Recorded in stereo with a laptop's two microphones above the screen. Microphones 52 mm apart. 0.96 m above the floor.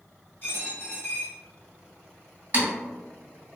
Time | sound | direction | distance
0.4 | a dropped coin | 40° left (ahead or behind) | 1.4 m
2.5 | typing on a keyboard | 35° right (ahead or behind) | 1.2 m